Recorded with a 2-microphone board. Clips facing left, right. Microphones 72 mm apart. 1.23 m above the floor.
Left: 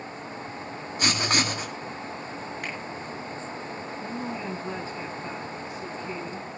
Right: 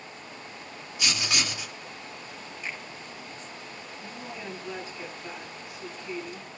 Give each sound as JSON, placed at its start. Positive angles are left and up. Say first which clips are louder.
{"t": 1.0, "sound": "writing", "louder": "left 5 dB", "side_deg": 45, "distance_m": 1.8}
{"t": 2.6, "sound": "a finger snap", "louder": "even", "side_deg": 65, "distance_m": 7.5}
{"t": 4.0, "sound": "a woman speaking", "louder": "left 6 dB", "side_deg": 35, "distance_m": 10.0}